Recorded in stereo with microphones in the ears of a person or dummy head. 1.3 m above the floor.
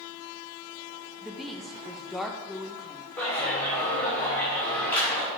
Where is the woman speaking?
5° left (ahead or behind), 0.6 m.